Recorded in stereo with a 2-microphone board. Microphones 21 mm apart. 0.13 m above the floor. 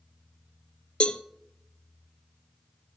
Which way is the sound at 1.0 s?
60° left (ahead or behind).